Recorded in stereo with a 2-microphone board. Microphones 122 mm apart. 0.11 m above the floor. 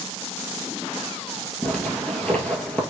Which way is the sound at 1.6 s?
10° left (ahead or behind).